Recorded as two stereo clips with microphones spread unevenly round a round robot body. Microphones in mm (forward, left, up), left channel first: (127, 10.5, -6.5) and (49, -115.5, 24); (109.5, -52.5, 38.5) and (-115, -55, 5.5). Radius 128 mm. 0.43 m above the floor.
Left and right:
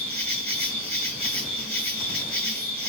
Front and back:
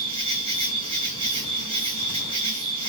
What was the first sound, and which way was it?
An insect, 130° left.